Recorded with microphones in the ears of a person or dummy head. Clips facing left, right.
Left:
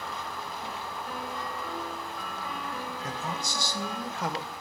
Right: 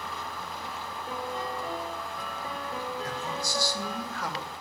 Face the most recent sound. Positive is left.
turn(degrees=25)  # may be behind; listen again after turning